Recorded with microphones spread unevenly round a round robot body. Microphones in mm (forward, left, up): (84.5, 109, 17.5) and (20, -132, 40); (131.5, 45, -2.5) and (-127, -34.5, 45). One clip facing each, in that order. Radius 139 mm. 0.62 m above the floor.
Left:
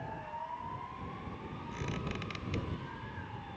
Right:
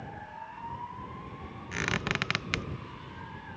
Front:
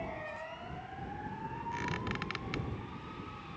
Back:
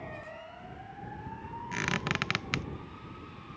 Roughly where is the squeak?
Behind right.